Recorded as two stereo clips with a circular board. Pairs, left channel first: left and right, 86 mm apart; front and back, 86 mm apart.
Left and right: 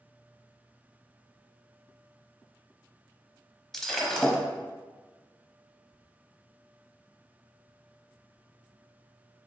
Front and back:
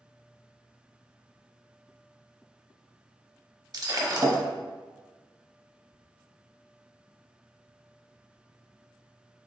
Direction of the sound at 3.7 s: 175° left.